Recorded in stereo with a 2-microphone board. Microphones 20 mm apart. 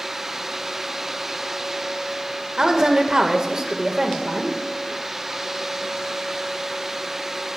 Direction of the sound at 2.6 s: 35° right (ahead or behind).